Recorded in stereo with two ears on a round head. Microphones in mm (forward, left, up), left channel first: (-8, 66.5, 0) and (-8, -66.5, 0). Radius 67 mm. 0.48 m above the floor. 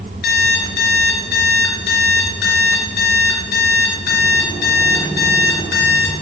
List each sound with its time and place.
0.2 s an alarm clock: 75° left (ahead or behind), 3 m